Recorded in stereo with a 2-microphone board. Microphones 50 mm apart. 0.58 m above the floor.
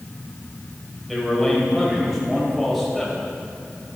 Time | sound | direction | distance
1.1 | a man speaking | centre (ahead or behind) | 3 m